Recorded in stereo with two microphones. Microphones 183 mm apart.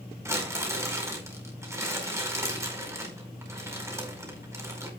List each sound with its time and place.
0.2 s crumpling: 15° right (ahead or behind), 5 m